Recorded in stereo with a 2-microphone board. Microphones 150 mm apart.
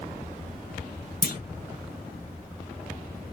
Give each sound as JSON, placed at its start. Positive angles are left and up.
{"t": 1.2, "sound": "a clunk", "side_deg": 70, "distance_m": 0.8}